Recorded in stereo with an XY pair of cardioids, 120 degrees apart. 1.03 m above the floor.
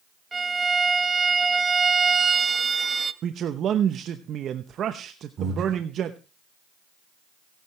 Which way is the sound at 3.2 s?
55° right.